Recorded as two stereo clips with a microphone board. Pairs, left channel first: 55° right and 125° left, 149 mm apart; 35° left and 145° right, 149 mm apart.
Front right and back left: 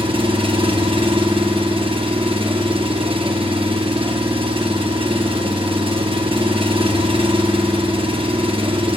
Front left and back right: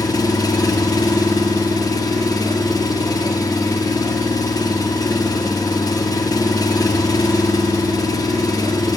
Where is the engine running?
90° left, 0.7 m.